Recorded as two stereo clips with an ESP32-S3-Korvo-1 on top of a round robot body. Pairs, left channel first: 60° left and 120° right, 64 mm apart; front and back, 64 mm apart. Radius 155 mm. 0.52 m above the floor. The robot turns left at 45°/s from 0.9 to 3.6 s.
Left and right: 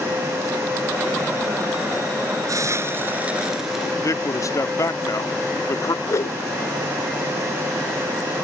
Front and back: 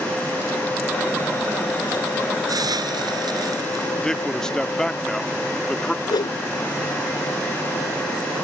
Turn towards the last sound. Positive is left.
turn(degrees=15)